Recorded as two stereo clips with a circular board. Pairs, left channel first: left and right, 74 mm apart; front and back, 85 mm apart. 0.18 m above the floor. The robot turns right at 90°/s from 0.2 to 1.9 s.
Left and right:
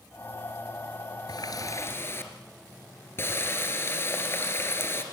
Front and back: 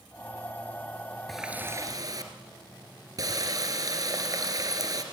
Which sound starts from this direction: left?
A running tap, at 1.3 s.